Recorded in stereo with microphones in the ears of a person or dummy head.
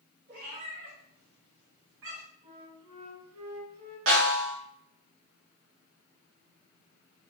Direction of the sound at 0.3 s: 60° right (ahead or behind).